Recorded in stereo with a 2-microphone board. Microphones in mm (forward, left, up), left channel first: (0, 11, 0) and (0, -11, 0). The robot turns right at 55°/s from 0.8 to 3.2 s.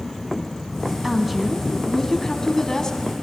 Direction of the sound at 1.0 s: 30° right.